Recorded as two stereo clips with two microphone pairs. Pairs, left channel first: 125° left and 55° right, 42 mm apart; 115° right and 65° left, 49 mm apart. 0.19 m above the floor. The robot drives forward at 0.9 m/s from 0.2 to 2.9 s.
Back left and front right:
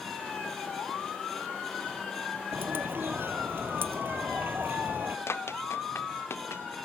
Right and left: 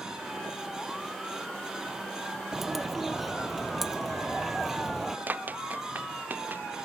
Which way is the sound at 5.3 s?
115° left.